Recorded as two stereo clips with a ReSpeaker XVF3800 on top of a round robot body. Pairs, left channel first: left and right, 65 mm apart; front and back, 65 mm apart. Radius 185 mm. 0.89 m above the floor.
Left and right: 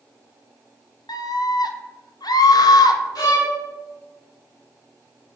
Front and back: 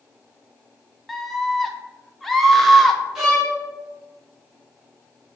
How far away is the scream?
About 1.0 m.